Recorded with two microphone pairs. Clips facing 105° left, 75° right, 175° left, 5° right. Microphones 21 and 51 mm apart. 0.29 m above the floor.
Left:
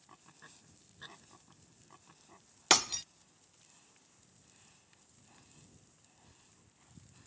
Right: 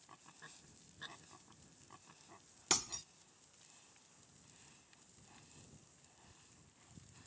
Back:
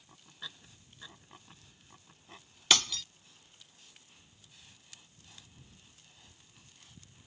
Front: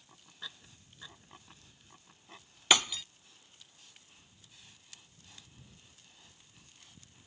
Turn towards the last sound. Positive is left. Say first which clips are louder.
# left 10 dB, front 2 dB
turn(degrees=70)